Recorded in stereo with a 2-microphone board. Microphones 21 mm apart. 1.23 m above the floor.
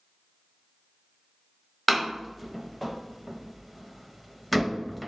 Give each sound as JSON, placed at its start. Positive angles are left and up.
{"t": 1.9, "sound": "a door slam", "side_deg": 5, "distance_m": 0.6}